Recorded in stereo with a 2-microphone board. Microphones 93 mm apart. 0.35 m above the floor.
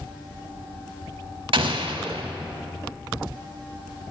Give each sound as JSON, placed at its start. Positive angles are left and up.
{"t": 1.5, "sound": "an explosion", "side_deg": -70, "distance_m": 0.6}